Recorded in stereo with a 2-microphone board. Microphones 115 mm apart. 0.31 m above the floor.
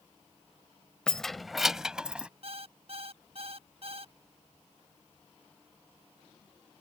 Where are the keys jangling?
5° left (ahead or behind); by 2.3 s 10° right (ahead or behind).